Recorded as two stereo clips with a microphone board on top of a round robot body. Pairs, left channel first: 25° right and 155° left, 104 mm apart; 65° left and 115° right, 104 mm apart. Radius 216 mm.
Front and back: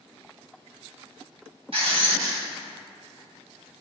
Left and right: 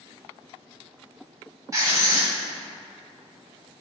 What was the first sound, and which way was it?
Writing, 170° right.